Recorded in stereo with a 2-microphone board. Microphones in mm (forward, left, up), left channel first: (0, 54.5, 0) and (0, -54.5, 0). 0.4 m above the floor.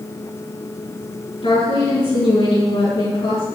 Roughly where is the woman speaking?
Left.